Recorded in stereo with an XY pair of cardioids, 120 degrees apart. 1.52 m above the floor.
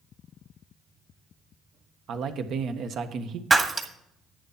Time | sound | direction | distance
2.1 | a man speaking | 60° right | 1.4 m
3.5 | breaking glass | 25° right | 1.9 m